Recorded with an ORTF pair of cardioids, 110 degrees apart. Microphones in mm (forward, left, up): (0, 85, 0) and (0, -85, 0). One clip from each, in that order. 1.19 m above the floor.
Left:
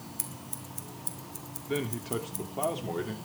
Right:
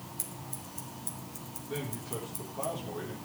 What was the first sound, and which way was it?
Scissors, 20° left.